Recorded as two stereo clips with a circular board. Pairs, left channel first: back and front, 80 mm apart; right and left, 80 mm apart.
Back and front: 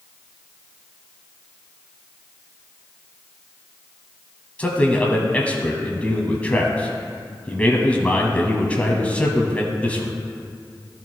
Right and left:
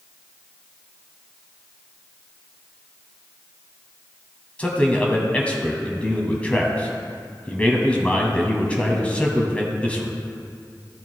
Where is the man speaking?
135° right, 1.1 m.